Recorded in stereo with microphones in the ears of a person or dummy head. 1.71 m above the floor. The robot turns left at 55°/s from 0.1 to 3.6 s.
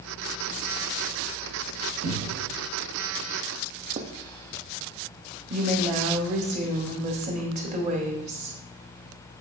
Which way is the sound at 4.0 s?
40° right (ahead or behind).